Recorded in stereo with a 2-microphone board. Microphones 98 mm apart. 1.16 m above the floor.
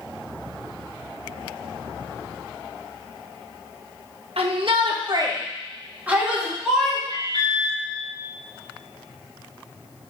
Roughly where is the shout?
Right.